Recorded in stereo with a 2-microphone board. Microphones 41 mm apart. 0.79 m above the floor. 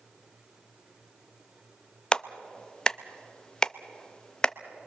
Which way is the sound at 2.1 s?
20° left (ahead or behind).